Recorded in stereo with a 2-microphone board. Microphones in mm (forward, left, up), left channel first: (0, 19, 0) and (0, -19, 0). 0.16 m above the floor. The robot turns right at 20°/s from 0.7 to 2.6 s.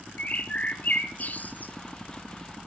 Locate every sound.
0.2 s a bird: 40° left (ahead or behind), 1.2 m; by 1.7 s 50° left (ahead or behind), 1.2 m